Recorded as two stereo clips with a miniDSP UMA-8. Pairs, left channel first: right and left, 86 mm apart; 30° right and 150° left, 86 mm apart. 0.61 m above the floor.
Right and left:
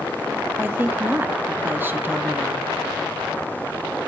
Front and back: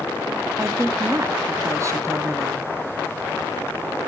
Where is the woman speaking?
140° left, 0.7 m.